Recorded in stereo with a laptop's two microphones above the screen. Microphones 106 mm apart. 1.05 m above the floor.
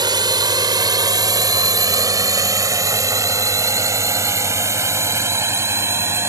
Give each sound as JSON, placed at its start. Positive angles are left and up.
{"t": 0.0, "sound": "a drone", "side_deg": -40}